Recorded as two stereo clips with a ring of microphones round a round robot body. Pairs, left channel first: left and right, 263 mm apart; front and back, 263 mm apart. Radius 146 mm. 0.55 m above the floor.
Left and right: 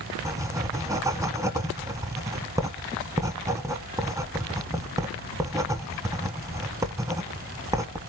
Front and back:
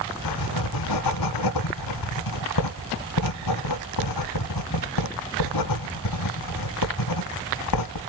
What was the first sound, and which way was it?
Writing, 10° right.